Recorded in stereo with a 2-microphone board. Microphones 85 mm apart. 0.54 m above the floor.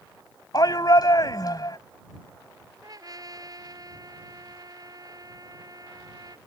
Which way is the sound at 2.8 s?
40° right (ahead or behind).